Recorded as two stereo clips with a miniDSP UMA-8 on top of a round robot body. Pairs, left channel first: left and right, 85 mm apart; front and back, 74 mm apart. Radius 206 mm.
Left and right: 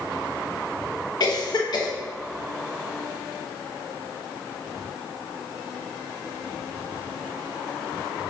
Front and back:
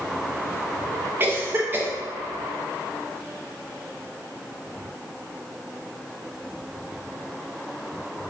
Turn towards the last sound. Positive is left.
turn(degrees=120)